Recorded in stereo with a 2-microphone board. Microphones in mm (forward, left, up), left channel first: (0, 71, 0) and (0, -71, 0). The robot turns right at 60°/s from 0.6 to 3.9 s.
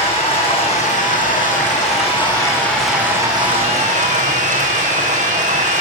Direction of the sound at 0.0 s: 45° left.